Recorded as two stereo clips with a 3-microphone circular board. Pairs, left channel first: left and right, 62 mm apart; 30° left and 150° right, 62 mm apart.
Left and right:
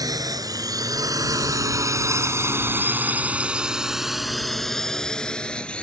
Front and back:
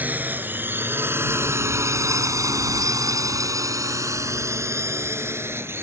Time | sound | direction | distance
0.0 | a drone | 85° right | ?